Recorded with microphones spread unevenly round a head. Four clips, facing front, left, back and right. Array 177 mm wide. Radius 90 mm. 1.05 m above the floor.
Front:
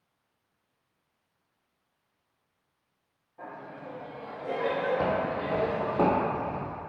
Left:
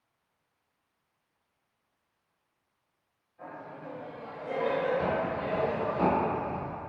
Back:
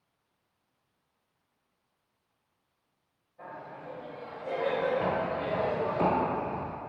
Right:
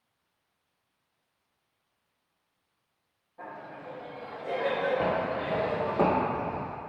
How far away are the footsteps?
About 2 m.